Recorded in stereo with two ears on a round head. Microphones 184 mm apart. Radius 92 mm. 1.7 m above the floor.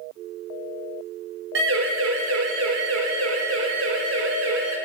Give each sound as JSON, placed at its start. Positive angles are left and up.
{"t": 1.6, "sound": "a siren", "side_deg": -65, "distance_m": 5.0}